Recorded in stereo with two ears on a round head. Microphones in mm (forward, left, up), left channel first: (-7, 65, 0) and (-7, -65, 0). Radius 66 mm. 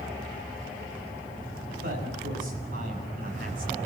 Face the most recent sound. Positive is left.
turn(degrees=-65)  # may be behind; listen again after turning